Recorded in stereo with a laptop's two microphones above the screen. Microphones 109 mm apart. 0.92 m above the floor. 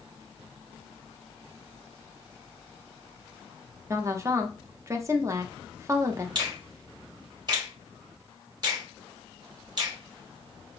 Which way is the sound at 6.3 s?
40° right (ahead or behind).